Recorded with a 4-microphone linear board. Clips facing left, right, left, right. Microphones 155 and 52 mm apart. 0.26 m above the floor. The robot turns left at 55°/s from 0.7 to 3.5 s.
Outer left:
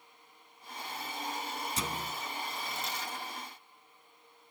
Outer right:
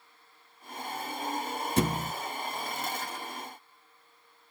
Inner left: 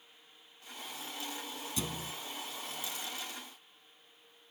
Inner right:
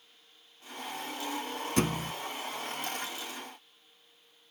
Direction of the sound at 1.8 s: 65° right (ahead or behind).